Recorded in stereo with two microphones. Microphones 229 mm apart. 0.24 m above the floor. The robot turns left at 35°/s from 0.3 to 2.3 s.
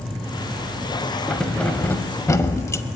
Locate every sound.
1.3 s keys jangling: centre (ahead or behind), 0.6 m; by 2.8 s 15° left (ahead or behind), 0.6 m